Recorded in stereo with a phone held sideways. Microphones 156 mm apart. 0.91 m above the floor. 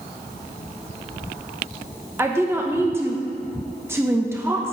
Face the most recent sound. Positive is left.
turn(degrees=-15)  # may be behind; listen again after turning